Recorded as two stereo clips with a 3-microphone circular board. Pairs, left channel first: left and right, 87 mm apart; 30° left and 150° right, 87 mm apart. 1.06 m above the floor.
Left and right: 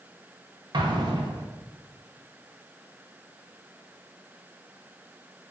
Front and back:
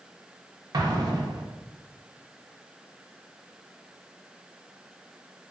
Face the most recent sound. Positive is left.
turn(degrees=-115)